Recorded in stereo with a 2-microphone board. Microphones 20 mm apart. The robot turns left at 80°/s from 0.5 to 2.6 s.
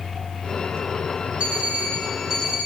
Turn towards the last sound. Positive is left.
turn(degrees=-165)